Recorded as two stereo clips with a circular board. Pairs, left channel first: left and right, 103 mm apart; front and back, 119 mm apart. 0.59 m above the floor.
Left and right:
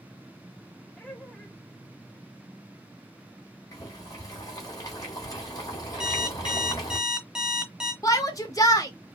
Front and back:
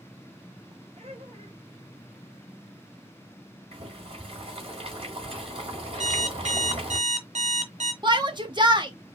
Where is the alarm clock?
175° right, 1.0 m.